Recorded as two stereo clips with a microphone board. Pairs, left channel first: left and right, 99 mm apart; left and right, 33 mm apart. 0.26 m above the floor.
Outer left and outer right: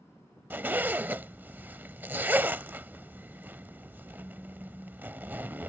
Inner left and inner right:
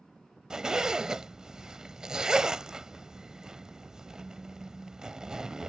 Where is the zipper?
20° right (ahead or behind).